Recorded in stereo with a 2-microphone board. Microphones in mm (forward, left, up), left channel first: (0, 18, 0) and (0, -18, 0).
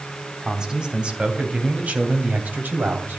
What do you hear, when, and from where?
0.4 s a man speaking: 20° right (ahead or behind), 3.5 m; by 3.2 s 70° right (ahead or behind), 3.5 m